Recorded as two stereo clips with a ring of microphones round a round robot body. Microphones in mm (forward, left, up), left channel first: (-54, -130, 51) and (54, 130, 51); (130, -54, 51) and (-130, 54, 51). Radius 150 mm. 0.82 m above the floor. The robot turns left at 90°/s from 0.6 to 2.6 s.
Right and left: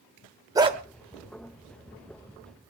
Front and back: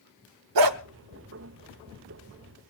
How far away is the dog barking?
About 0.9 m.